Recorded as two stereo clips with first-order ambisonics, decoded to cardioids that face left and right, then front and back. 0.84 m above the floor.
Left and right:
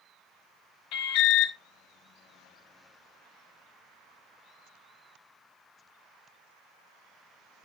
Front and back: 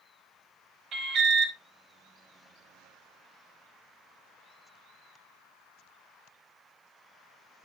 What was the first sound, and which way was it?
An alarm, 120° left.